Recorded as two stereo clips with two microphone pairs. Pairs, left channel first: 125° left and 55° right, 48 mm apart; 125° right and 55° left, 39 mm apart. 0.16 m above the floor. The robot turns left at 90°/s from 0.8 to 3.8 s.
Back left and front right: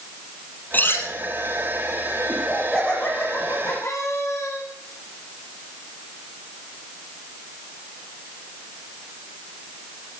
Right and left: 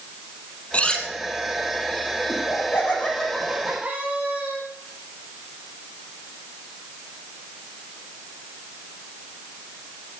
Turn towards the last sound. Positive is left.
turn(degrees=120)